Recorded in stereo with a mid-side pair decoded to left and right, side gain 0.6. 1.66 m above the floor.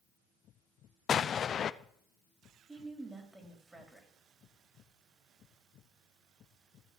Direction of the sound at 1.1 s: 40° left.